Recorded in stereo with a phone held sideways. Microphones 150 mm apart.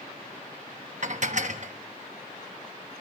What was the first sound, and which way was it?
Dishes clattering, 55° right (ahead or behind).